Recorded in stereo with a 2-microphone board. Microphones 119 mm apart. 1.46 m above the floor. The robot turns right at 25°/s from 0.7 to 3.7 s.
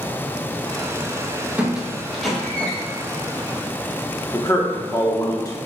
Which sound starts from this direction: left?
A man speaking, at 4.3 s.